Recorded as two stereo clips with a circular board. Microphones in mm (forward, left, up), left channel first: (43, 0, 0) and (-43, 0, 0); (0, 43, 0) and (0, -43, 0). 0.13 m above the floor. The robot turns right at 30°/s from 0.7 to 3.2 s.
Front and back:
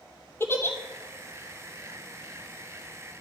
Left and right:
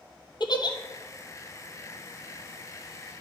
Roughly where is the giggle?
Ahead left.